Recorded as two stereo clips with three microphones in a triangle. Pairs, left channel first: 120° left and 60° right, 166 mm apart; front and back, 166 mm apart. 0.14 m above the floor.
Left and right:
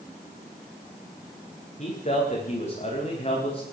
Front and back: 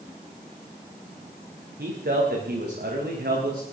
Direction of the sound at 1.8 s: 165° left.